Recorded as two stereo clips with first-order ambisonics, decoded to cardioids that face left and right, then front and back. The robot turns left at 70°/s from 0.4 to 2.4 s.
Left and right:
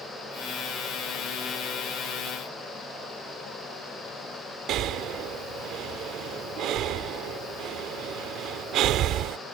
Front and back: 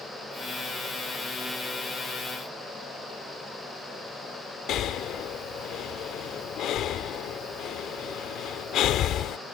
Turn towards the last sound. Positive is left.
turn(degrees=-45)